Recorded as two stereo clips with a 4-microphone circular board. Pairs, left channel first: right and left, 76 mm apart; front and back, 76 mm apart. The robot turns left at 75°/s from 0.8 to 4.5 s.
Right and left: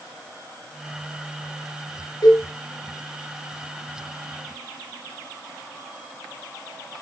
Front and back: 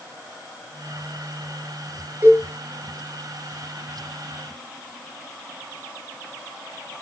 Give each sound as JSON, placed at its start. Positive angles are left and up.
{"t": 2.2, "sound": "a cowbell", "azimuth_deg": -115, "distance_m": 10.0}